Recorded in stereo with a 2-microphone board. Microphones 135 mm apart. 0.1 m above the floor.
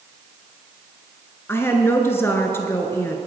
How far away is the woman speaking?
About 1.1 m.